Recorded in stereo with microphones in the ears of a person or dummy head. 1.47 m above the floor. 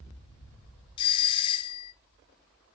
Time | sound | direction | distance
1.0 | a doorbell | 25° left (ahead or behind) | 0.8 m